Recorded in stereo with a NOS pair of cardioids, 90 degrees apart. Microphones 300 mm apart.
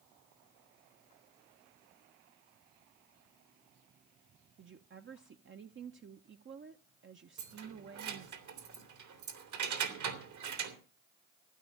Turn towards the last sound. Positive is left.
turn(degrees=-65)